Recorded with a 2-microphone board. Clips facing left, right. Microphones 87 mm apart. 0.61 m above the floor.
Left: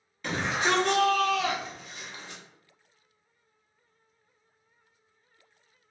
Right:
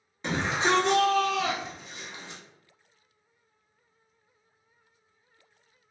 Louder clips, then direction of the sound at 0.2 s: Right 1 dB; 25° right (ahead or behind).